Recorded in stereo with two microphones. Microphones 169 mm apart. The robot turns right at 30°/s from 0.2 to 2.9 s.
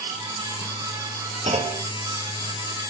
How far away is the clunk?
About 1.7 m.